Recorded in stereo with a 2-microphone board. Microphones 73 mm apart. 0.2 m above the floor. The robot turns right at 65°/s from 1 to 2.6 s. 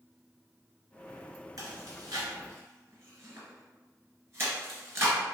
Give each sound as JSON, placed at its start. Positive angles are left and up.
{"t": 1.6, "sound": "chewing", "side_deg": -60, "distance_m": 1.6}